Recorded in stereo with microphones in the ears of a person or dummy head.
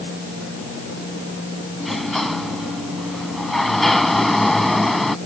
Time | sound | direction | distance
1.8 | a sliding door | centre (ahead or behind) | ?